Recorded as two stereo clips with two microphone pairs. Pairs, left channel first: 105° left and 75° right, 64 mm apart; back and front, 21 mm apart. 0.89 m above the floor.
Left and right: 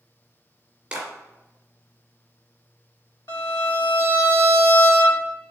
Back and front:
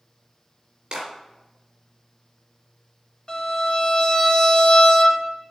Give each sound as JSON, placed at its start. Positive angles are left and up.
{"t": 0.9, "sound": "a clap", "azimuth_deg": -5, "distance_m": 2.5}
{"t": 3.3, "sound": "a violin", "azimuth_deg": 130, "distance_m": 1.8}